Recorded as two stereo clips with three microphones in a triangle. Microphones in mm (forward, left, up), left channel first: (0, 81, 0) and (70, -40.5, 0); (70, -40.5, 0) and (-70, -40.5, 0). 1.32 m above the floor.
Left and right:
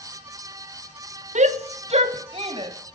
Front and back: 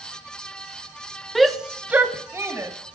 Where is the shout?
90° right, 0.9 m; by 2.7 s 110° right, 1.7 m.